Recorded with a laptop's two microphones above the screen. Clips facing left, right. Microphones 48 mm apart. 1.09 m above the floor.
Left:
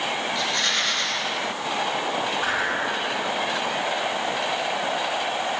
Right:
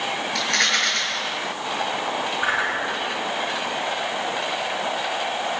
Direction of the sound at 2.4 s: 30° right (ahead or behind).